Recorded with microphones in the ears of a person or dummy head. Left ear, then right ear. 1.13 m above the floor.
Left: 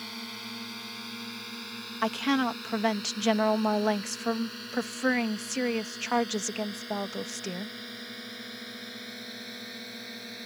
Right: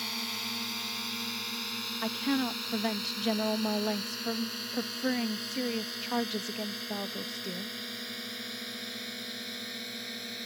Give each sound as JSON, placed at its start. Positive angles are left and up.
{"t": 0.0, "sound": "a drone", "side_deg": -20}
{"t": 2.0, "sound": "a woman speaking", "side_deg": 45}